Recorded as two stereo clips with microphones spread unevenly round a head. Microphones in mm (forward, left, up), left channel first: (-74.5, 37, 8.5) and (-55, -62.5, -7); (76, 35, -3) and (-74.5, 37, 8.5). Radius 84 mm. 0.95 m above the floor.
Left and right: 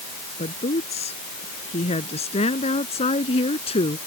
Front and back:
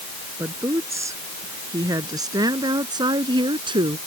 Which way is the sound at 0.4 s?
105° left.